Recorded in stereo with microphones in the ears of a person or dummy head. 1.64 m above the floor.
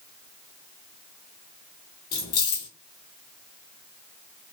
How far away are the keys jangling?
About 0.5 m.